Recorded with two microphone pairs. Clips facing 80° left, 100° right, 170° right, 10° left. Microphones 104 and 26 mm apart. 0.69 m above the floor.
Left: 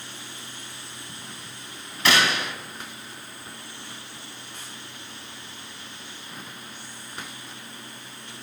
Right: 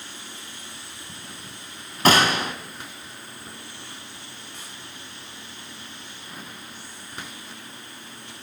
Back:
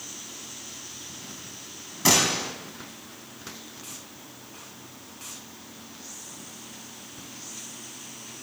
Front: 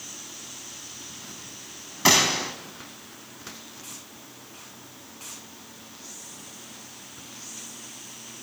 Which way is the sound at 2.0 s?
55° right.